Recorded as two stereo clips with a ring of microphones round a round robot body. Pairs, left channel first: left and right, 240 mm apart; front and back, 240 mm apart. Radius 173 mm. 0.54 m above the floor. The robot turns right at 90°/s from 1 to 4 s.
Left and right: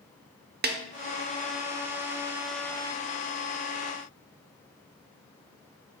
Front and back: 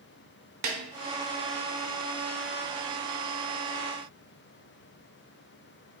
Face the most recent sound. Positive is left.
turn(degrees=125)